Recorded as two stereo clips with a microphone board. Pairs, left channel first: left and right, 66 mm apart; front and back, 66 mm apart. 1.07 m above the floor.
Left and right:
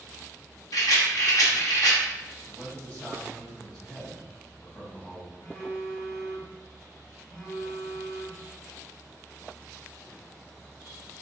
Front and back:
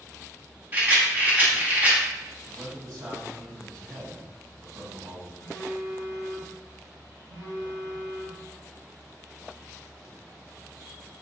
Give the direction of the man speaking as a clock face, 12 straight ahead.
7 o'clock.